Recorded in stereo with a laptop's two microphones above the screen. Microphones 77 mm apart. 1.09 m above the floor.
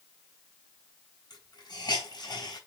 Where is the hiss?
65° left (ahead or behind), 4 m.